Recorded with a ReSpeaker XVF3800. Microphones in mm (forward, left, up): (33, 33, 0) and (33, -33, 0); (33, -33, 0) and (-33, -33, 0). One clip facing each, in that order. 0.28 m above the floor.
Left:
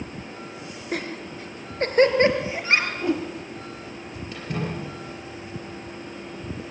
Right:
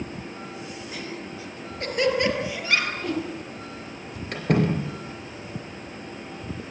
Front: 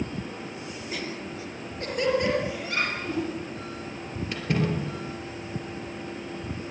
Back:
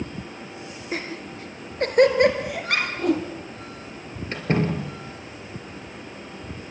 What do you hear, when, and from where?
0.9 s laughter: 130° left, 3 m; by 2.9 s 150° left, 5.5 m
3.0 s a whoosh: 160° left, 5 m
4.3 s a door slam: 125° right, 4 m